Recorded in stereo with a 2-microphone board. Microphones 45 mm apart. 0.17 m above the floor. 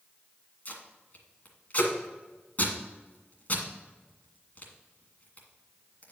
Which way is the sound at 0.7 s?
35° left (ahead or behind).